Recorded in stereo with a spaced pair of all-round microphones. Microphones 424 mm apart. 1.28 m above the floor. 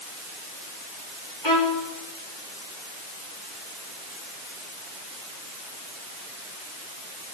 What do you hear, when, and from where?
1.4 s a violin: 80° left, 4.5 m